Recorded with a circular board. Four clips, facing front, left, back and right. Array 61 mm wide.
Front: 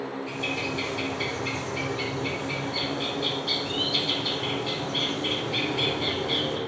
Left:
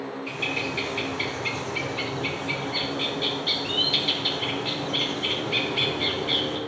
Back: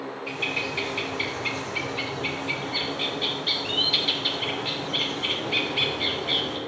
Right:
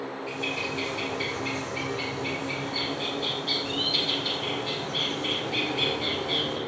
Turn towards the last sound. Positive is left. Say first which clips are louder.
# left 2 dB, back 3 dB
turn(degrees=140)